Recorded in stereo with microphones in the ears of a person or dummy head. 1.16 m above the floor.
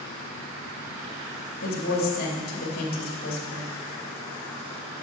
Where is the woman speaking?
50° left (ahead or behind), 2.5 m.